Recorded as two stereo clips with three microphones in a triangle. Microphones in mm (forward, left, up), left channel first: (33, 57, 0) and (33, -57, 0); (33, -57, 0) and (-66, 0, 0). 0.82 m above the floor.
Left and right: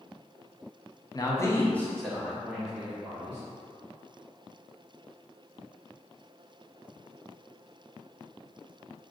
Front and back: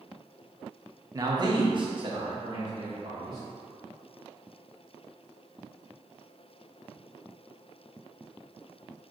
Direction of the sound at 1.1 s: 115° left.